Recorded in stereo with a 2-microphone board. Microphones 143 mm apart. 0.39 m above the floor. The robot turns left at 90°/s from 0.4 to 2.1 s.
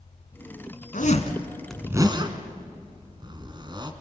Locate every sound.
0.9 s a zipper: 70° left (ahead or behind), 1.9 m; by 3.9 s 30° right (ahead or behind), 1.9 m